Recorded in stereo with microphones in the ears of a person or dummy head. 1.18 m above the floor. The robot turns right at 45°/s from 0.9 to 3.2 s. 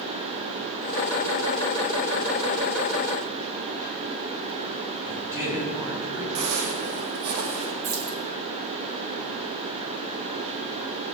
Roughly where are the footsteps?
Right.